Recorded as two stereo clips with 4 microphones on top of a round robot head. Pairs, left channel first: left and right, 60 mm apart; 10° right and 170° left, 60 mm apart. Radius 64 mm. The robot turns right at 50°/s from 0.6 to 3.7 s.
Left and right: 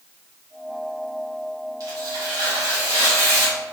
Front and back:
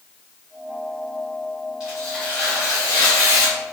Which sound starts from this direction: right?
Tearing paper, at 1.8 s.